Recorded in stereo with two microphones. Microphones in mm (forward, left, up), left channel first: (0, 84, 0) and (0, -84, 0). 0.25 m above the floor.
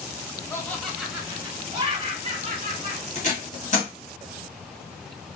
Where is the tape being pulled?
45° left (ahead or behind), 1.5 m.